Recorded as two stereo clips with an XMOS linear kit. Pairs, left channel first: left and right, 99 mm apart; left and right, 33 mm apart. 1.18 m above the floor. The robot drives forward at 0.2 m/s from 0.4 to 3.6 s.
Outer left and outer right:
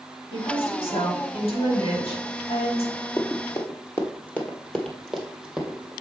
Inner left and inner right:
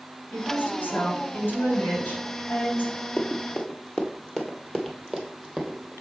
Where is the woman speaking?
75° left (ahead or behind), 3.5 m; by 2.9 s 70° left (ahead or behind), 3.5 m.